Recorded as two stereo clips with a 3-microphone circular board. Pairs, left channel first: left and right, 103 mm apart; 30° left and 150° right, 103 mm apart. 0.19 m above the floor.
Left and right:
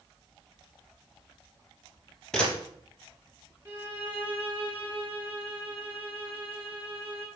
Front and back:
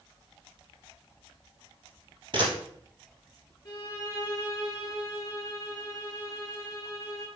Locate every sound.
2.3 s a camera shutter: 175° left, 2.5 m
3.6 s a violin: 20° right, 3 m